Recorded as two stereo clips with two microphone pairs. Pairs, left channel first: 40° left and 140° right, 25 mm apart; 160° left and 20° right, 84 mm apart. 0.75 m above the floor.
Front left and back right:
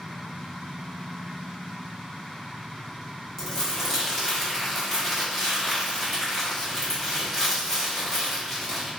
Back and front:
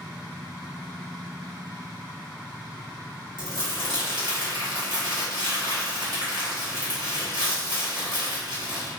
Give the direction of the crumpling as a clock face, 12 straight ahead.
1 o'clock.